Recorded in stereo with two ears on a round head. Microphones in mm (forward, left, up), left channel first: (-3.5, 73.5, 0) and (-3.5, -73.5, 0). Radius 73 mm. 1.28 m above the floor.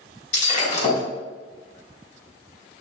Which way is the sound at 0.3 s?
45° left (ahead or behind).